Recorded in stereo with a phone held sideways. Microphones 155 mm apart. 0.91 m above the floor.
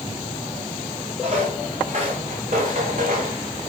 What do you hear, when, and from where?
1.2 s footsteps: 50° right (ahead or behind), 5.5 m; by 3.4 s 70° right (ahead or behind), 4 m